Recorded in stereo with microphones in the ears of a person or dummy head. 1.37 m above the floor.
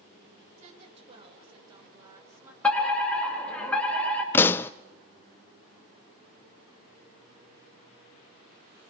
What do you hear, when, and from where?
0.6 s a woman speaking: 35° right (ahead or behind), 5.5 m; by 2.5 s 10° right (ahead or behind), 5 m
2.6 s a fire alarm: 10° left (ahead or behind), 4.5 m
4.3 s a pop: 15° left (ahead or behind), 0.6 m